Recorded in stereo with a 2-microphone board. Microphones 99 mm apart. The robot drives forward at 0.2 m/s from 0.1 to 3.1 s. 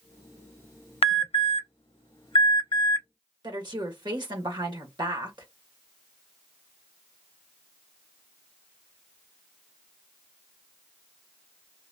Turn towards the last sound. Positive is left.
turn(degrees=-50)  # may be behind; listen again after turning